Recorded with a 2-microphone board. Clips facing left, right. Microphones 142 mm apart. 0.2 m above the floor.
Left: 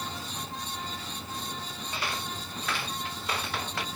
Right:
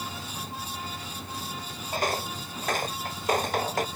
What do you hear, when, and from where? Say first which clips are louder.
1.9 s footsteps: right 7 dB; 45° right (ahead or behind)